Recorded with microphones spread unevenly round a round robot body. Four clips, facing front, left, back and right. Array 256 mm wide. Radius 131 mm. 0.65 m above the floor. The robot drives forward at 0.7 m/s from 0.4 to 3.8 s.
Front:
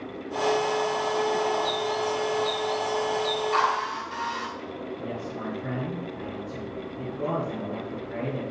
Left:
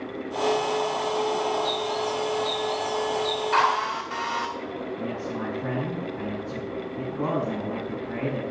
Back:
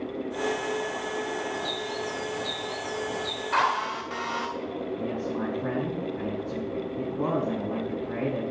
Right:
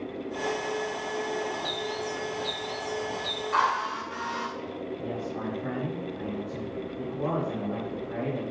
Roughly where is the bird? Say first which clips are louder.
Left 6 dB, front 5 dB; behind right.